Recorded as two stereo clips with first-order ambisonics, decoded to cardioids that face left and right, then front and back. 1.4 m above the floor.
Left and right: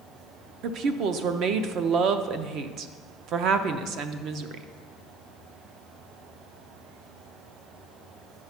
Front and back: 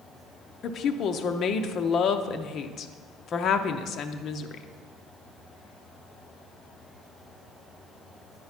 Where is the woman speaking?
55° right, 0.5 m.